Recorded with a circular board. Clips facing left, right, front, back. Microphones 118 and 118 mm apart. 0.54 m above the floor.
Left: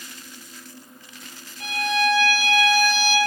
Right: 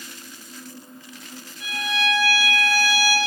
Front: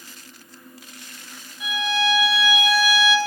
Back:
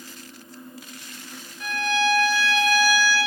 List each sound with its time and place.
1.6 s a violin: 80° left, 1.1 m